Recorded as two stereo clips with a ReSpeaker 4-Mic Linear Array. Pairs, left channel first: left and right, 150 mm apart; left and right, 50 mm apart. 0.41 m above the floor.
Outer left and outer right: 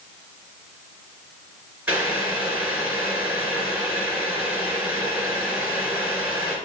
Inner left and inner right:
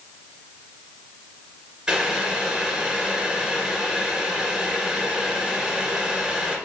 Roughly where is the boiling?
Centre.